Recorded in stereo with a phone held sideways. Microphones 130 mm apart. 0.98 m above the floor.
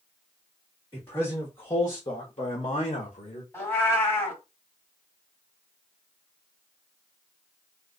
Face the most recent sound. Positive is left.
turn(degrees=20)  # may be behind; listen again after turning